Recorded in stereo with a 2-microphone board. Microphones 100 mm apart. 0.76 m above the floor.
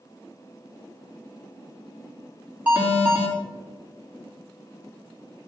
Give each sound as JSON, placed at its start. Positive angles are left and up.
{"t": 2.7, "sound": "an alarm", "side_deg": -15, "distance_m": 3.0}